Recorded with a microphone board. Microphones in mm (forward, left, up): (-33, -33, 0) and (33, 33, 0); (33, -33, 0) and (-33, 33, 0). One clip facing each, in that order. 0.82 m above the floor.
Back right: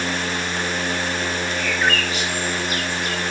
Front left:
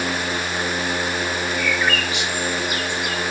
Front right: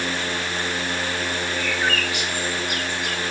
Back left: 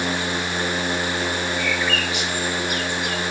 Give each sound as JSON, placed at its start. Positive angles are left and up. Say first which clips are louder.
{"t": 1.6, "sound": "a bird", "louder": "back right 1 dB, back left 1 dB", "azimuth_deg": -90, "distance_m": 2.0}